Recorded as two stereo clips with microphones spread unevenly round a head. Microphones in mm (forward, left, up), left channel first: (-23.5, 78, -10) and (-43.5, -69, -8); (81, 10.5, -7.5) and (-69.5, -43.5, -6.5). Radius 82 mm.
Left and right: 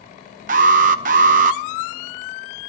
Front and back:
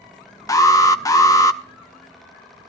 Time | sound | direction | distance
0.5 | an alarm | 50° right | 0.8 m